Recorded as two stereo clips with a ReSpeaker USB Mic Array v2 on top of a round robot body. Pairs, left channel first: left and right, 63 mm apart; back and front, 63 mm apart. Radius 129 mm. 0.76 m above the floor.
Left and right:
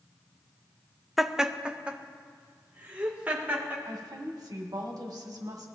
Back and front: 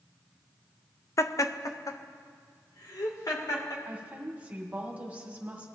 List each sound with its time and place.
1.2 s laughter: 175° right, 0.8 m; by 3.8 s 155° right, 3.5 m
3.9 s a woman speaking: 70° right, 2 m